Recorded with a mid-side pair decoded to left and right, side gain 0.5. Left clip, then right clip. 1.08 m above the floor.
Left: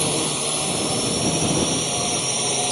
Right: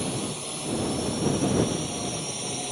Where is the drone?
55° left; by 2.7 s 50° left.